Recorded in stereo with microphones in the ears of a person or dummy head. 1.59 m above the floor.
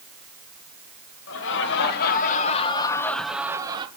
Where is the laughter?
65° left (ahead or behind), 3 m; by 3.9 s 25° right (ahead or behind), 2.0 m.